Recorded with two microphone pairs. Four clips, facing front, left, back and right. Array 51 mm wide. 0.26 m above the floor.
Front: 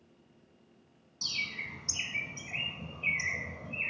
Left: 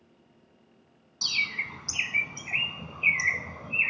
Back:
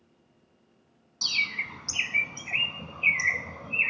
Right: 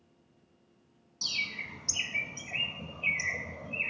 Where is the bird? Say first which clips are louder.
Left 6 dB, back 8 dB; 135° left, 0.6 m.